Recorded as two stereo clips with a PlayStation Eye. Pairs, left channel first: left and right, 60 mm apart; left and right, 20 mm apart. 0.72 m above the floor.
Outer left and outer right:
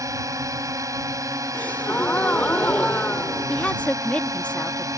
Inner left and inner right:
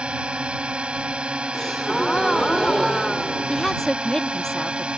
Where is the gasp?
30° left (ahead or behind).